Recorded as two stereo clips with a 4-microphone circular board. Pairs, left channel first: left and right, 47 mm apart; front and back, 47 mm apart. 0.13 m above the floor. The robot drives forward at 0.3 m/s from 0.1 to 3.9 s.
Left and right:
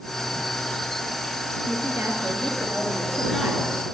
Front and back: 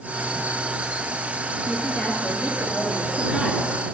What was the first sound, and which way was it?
A woman speaking, 95° right.